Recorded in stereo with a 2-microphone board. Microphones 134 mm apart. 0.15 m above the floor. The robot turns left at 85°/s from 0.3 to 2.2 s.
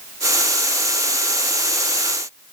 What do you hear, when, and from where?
Only background noise.